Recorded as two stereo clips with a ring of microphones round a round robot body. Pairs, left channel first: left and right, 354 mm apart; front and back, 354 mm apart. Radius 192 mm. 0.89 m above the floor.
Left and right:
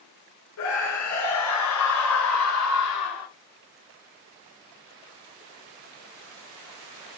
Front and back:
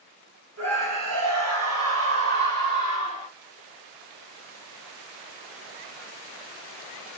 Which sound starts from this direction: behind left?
A scream, at 0.6 s.